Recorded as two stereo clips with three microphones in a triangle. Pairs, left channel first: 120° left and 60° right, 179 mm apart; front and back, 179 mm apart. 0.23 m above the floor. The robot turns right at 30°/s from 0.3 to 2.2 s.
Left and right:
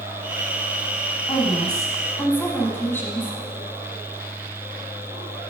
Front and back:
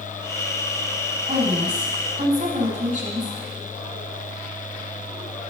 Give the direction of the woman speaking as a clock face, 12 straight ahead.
6 o'clock.